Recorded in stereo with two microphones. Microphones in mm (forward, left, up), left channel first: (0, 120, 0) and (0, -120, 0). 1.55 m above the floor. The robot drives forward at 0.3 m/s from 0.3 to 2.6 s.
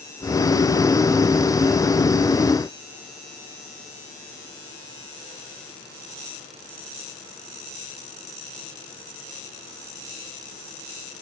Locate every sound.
Only background noise.